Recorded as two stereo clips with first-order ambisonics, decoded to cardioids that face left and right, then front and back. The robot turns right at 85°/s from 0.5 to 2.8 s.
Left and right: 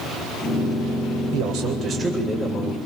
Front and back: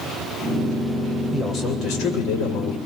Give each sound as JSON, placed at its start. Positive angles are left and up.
{"t": 1.3, "sound": "a man speaking", "azimuth_deg": -80, "distance_m": 8.0}